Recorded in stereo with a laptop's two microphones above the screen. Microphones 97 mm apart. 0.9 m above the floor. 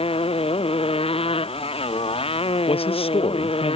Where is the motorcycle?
75° left (ahead or behind).